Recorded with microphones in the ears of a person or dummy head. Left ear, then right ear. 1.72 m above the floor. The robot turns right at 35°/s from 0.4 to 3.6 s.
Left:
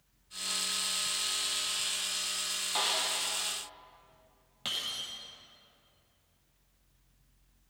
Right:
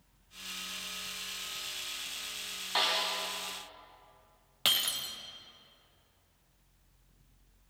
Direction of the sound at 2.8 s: 10° right (ahead or behind).